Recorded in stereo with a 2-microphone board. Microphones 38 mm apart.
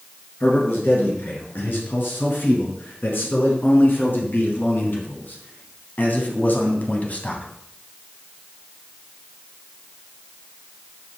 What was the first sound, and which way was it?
A man speaking, 70° left (ahead or behind).